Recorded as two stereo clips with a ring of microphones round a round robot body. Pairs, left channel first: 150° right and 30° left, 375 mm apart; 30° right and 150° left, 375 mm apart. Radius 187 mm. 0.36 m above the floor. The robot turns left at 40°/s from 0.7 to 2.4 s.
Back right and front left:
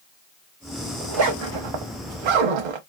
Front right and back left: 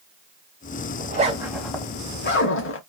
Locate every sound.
1.0 s a zipper: 85° left, 1.0 m; by 2.8 s 30° left, 1.0 m